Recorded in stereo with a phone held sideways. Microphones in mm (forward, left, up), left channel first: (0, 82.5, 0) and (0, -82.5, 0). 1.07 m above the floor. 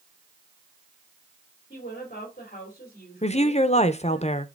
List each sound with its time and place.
1.7 s a woman speaking: 55° left (ahead or behind), 3 m
3.2 s a woman speaking: 40° left (ahead or behind), 0.7 m